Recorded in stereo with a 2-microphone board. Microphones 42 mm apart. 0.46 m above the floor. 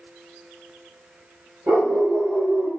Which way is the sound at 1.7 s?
75° right (ahead or behind).